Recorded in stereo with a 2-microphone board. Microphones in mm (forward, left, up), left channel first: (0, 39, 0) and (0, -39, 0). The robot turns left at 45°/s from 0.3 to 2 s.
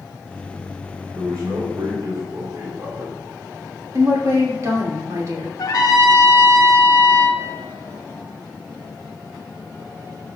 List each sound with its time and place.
1.1 s a man speaking: 80° right, 1.9 m; by 3.2 s 120° right, 1.9 m
3.9 s a woman speaking: 45° right (ahead or behind), 2.5 m
5.6 s a trumpet: 50° left (ahead or behind), 1.1 m